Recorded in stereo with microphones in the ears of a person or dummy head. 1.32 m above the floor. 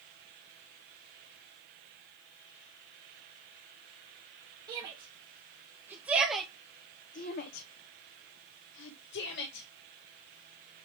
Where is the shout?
25° right (ahead or behind), 2 m; by 9.7 s 60° left (ahead or behind), 1.9 m.